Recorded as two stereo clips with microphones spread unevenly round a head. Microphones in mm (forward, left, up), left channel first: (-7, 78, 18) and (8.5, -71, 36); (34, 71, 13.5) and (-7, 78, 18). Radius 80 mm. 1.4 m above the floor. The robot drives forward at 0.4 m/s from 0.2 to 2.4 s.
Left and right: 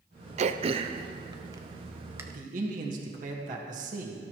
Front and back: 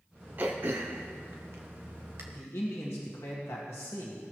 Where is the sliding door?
I don't hear a sliding door.